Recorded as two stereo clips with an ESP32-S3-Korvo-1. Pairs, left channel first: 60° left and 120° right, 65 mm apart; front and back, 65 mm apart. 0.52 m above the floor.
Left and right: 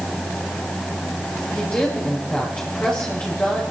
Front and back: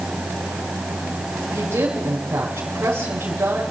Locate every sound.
1.5 s a woman speaking: 130° left, 6 m